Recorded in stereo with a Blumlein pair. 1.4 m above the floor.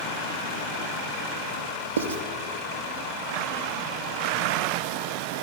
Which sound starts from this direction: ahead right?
Writing, at 2.0 s.